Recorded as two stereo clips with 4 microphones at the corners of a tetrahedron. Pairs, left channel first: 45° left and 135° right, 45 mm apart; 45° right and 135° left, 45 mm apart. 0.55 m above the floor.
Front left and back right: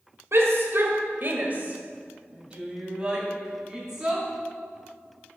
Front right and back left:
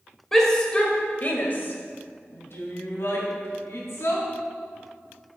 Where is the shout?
125° right, 1.8 m; by 4.2 s 55° right, 4.5 m.